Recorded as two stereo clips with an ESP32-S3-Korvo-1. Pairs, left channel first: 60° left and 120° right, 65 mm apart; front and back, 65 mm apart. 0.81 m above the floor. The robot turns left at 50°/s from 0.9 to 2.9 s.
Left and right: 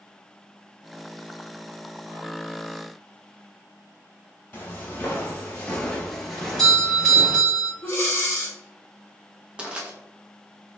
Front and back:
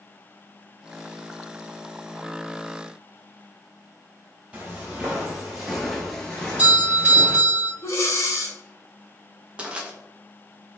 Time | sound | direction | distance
4.5 | footsteps | 115° left | 1.2 m
6.4 | a doorbell | 135° left | 1.4 m
7.8 | breathing | 30° left | 0.7 m
9.6 | crushing | 150° right | 0.6 m